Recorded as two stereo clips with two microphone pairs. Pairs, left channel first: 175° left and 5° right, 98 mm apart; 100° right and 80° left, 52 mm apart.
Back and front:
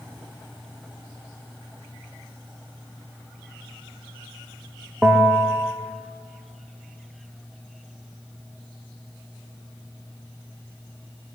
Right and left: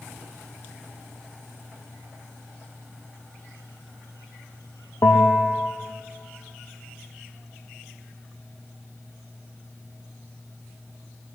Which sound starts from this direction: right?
A bell, at 5.0 s.